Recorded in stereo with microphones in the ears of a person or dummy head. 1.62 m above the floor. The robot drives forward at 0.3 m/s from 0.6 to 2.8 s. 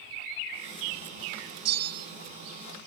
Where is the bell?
60° right (ahead or behind), 1.2 m; by 2.1 s 55° right (ahead or behind), 1.3 m.